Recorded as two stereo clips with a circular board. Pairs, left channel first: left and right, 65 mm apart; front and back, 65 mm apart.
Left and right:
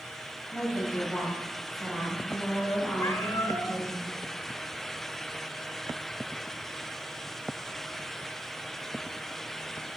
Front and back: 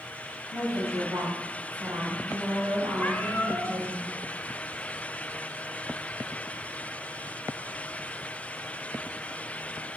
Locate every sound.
0.5 s a woman speaking: straight behind, 5.5 m; by 4.0 s 175° right, 7.5 m
3.0 s a cat meowing: 65° left, 1.7 m